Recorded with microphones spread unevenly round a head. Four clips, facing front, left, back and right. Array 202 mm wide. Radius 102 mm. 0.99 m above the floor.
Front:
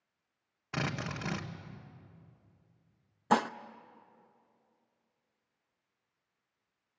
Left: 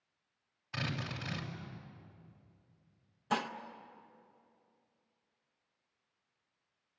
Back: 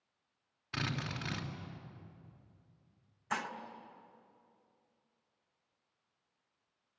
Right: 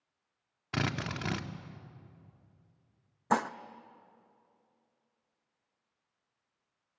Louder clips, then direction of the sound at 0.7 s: Right 6 dB, front 3 dB; 70° right.